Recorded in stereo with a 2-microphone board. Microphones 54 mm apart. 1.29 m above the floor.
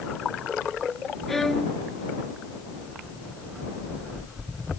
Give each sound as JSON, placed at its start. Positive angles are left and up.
{"t": 1.3, "sound": "a violin", "side_deg": 5}